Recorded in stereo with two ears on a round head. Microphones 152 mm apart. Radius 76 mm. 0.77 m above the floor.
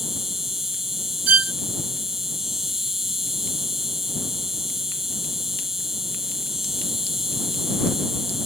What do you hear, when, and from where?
0.0 s an insect: centre (ahead or behind)
1.3 s a violin: 55° right (ahead or behind)